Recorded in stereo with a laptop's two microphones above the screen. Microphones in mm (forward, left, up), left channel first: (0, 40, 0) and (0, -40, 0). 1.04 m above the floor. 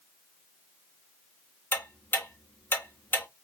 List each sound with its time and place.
1.7 s ticking: 25° left (ahead or behind), 0.9 m